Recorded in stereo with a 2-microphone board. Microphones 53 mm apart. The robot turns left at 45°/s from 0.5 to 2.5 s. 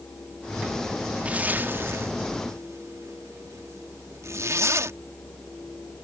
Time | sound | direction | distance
1.2 | a zipper | 25° right (ahead or behind) | ?